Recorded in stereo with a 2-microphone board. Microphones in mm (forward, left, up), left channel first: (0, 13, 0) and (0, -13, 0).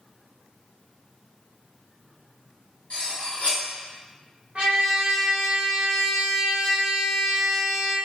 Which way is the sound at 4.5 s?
50° right (ahead or behind).